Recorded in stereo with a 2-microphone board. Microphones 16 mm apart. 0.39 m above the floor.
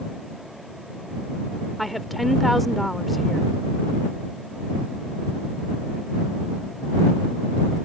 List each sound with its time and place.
1.8 s a woman speaking: 5° left (ahead or behind)